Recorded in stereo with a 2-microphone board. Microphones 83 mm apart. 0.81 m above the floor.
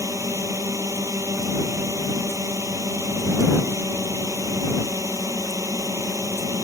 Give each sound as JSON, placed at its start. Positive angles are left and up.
{"t": 0.0, "sound": "a drone", "side_deg": -35}